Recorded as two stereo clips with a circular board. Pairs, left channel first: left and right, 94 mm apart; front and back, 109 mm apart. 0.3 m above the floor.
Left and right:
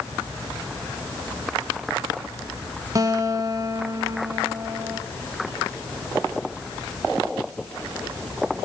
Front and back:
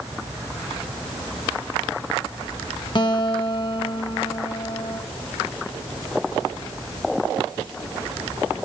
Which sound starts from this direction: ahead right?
A guitar, at 3.0 s.